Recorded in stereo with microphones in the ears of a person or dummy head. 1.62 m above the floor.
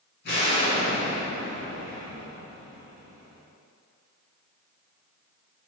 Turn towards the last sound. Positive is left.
turn(degrees=55)  # may be behind; listen again after turning